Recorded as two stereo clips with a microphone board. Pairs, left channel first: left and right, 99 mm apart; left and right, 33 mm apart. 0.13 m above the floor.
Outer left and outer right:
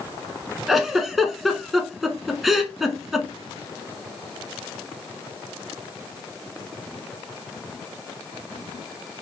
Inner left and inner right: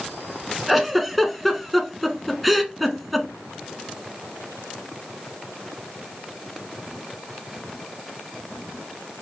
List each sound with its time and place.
0.7 s a giggle: centre (ahead or behind), 0.8 m